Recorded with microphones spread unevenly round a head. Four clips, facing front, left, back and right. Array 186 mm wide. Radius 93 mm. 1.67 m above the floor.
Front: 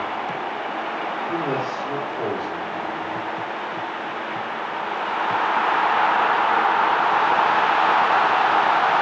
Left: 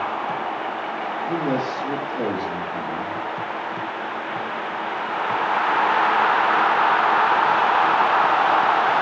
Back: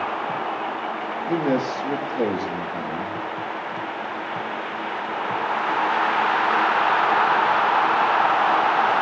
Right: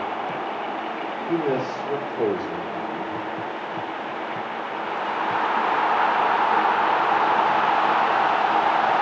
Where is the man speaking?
Straight behind, 3.5 m.